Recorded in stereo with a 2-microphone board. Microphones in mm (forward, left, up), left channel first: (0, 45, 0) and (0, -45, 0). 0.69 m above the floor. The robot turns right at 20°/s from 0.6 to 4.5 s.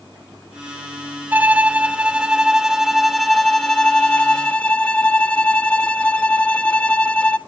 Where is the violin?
40° right, 0.7 m; by 7.4 s 25° left, 0.7 m.